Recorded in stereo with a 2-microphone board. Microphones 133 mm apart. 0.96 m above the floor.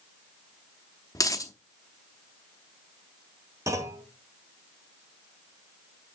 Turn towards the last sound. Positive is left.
turn(degrees=-25)  # may be behind; listen again after turning